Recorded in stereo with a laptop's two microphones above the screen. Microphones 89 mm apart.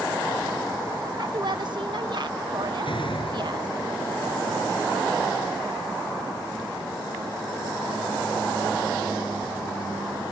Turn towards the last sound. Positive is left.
turn(degrees=70)  # may be behind; listen again after turning